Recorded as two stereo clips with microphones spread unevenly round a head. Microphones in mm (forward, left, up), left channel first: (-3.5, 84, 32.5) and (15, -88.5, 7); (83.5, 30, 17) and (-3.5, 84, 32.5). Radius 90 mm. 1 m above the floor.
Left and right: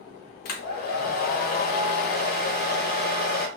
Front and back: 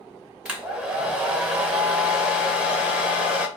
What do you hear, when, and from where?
0.5 s a hair dryer: 65° left, 0.8 m